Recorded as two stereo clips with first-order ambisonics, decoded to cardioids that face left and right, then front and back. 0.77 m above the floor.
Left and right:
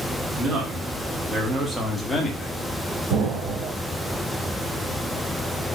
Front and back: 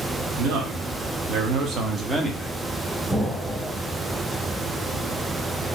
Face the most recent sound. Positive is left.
turn(degrees=-85)